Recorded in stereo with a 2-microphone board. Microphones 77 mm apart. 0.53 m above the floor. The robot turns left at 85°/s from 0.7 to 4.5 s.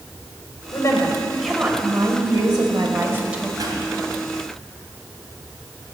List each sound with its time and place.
0.7 s a woman speaking: 60° left, 1.9 m; by 3.5 s 175° right, 1.9 m
3.6 s a pop: 60° right (ahead or behind), 3 m; by 3.8 s 75° right (ahead or behind), 3 m